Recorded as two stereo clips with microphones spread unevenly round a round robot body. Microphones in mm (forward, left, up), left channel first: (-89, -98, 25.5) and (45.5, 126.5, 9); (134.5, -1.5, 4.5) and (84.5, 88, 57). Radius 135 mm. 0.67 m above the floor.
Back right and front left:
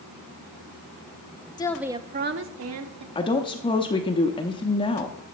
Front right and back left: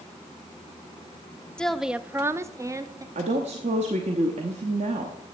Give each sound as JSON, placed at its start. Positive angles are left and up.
{"t": 1.6, "sound": "a woman speaking", "azimuth_deg": -55, "distance_m": 0.6}
{"t": 3.1, "sound": "a woman speaking", "azimuth_deg": 165, "distance_m": 0.8}